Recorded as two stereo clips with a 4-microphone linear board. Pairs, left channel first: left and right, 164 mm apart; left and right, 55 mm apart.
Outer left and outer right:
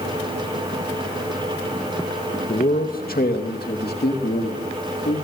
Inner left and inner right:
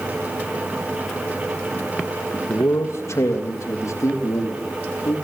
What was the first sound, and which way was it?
A man speaking, 55° left (ahead or behind).